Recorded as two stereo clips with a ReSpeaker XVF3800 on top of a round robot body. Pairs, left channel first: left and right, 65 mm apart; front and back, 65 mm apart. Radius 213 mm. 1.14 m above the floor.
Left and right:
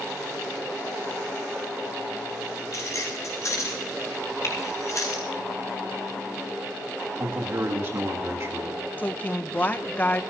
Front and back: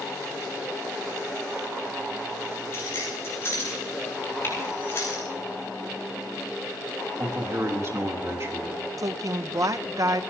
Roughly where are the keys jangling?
Ahead left.